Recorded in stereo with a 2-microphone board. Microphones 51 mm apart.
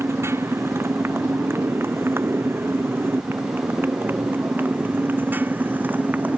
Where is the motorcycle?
60° right (ahead or behind); by 6.4 s 35° right (ahead or behind).